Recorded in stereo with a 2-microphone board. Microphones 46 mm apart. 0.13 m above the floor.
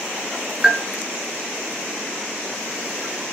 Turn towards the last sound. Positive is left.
turn(degrees=-15)  # may be behind; listen again after turning